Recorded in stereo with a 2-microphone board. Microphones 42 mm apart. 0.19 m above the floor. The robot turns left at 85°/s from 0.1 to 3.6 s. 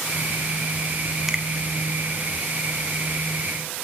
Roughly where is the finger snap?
Centre.